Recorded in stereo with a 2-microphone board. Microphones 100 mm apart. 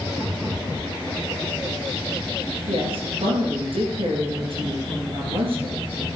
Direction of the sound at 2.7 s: 65° right (ahead or behind).